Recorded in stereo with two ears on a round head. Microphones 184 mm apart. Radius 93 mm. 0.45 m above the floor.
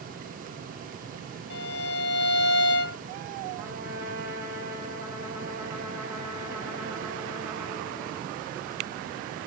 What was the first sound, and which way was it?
A violin, 60° left (ahead or behind).